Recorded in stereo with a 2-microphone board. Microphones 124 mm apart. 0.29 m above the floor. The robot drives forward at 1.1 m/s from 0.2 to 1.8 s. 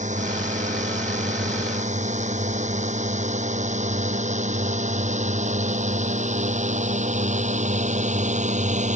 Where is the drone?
80° right; by 9.0 s 75° right (ahead or behind).